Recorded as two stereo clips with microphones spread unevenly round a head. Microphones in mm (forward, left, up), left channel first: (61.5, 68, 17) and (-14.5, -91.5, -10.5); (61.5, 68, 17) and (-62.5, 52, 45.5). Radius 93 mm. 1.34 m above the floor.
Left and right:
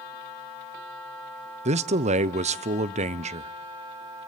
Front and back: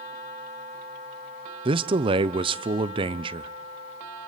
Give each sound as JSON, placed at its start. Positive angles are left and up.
{"t": 1.6, "sound": "a man speaking", "azimuth_deg": -125, "distance_m": 0.6}